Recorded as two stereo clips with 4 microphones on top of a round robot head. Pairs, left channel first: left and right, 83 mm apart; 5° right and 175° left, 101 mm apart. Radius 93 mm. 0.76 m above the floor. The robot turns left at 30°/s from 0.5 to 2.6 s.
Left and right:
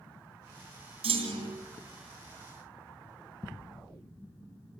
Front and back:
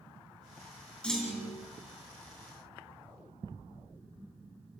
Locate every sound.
1.0 s a clunk: 85° right, 2.5 m; by 1.6 s 105° right, 2.5 m